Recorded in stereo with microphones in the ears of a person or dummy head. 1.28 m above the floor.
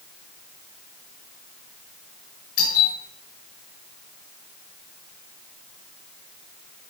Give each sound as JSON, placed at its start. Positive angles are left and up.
{"t": 2.6, "sound": "a doorbell", "side_deg": 80, "distance_m": 9.5}